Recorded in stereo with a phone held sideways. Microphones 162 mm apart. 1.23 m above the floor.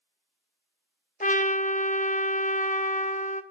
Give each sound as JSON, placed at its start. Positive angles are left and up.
{"t": 1.2, "sound": "a trumpet", "side_deg": 50, "distance_m": 0.9}